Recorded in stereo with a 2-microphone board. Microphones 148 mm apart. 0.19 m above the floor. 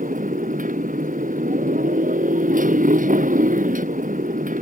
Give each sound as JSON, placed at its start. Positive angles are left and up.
{"t": 0.0, "sound": "a motorcycle", "side_deg": -65}